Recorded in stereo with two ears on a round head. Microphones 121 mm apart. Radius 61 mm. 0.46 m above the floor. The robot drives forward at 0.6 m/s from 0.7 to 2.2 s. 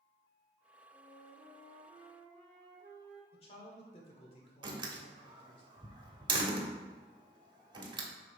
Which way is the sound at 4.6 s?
35° right (ahead or behind).